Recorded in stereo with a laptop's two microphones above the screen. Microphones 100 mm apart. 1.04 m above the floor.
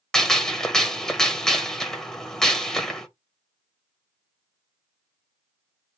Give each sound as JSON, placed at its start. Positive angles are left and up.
{"t": 0.1, "sound": "a gunshot", "side_deg": 5, "distance_m": 0.9}